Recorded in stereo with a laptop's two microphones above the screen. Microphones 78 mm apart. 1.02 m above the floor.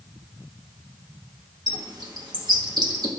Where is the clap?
No clap in this recording.